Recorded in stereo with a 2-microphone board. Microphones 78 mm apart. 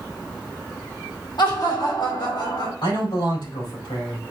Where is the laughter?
65° left (ahead or behind), 2 m; by 2.7 s 75° left (ahead or behind), 3 m.